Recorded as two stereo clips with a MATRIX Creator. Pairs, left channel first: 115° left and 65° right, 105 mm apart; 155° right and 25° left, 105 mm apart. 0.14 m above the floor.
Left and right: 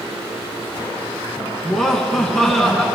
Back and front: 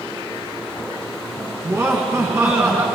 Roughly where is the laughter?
Ahead left.